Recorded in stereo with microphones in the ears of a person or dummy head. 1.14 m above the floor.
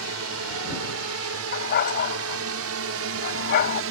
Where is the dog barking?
55° left (ahead or behind).